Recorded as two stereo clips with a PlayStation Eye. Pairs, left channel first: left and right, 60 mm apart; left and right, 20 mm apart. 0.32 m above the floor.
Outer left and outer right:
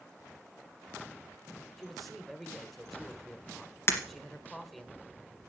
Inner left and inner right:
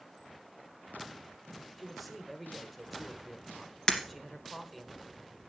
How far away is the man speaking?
About 1.3 m.